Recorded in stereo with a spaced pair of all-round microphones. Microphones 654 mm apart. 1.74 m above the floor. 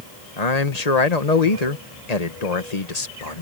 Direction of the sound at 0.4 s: 70° left (ahead or behind).